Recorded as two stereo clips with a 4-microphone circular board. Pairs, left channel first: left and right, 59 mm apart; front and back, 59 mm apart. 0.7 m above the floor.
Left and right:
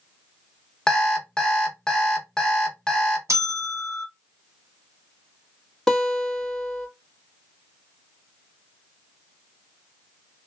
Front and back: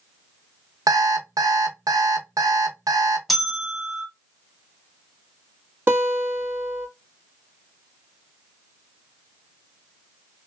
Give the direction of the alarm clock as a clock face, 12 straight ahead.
6 o'clock.